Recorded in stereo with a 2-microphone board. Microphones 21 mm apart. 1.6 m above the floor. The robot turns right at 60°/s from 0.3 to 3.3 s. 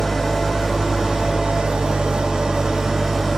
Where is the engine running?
175° left, 2 m; by 3.4 s 5° right, 2 m.